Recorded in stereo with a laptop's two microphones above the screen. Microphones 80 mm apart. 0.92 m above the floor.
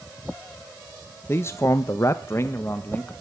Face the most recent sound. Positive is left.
turn(degrees=25)  # may be behind; listen again after turning